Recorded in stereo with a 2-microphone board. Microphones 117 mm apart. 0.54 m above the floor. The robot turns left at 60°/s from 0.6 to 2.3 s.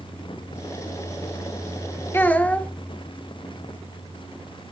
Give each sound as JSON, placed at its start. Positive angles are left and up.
{"t": 2.1, "sound": "a child speaking", "side_deg": 20, "distance_m": 0.7}